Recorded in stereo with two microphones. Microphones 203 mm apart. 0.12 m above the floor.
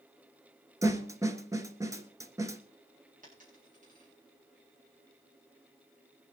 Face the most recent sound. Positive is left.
turn(degrees=-40)  # may be behind; listen again after turning